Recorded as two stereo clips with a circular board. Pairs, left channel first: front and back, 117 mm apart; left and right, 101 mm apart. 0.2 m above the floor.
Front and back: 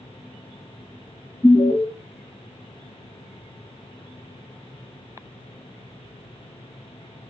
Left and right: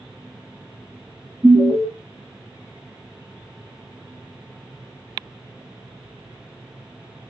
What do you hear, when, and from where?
1.4 s an alarm: straight ahead, 1.4 m